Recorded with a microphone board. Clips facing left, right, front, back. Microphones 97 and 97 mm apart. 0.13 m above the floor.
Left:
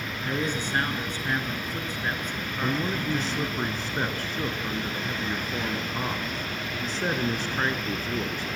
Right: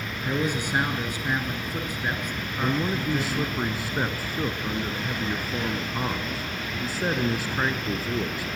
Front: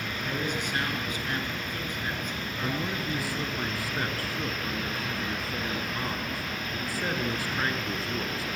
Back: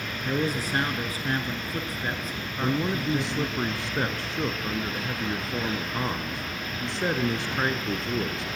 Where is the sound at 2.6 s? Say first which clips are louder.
Right 2 dB, back 6 dB; 160° right, 1.1 m.